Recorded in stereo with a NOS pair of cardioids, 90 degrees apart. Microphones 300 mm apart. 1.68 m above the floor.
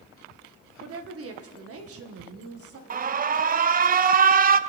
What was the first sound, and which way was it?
A woman speaking, 50° right.